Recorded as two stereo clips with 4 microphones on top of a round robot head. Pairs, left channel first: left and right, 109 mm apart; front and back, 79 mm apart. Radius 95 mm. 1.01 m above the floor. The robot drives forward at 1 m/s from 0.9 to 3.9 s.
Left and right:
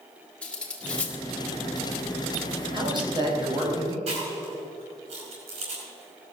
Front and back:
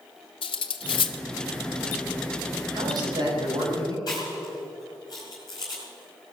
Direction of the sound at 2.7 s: 135° right.